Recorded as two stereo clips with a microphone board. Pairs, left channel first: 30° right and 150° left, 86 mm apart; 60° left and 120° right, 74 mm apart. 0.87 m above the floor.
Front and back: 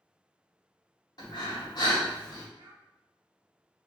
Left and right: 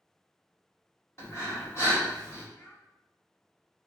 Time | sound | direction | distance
1.2 | breathing | 10° left | 1.1 m
2.6 | a child speaking | 115° left | 0.9 m